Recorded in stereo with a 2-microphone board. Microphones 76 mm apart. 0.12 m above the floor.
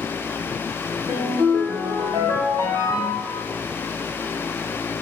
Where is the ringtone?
50° right (ahead or behind), 1.9 m.